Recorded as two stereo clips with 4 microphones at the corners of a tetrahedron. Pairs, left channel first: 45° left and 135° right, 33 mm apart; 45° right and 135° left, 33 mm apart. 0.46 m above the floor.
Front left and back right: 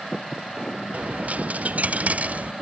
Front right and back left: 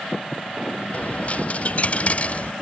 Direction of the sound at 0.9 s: 95° right.